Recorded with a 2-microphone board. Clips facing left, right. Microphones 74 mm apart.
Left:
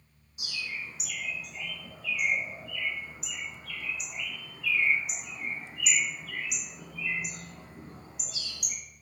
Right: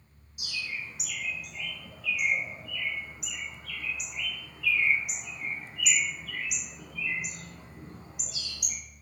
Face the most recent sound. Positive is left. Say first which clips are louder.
# right 1 dB
turn(degrees=35)  # may be behind; listen again after turning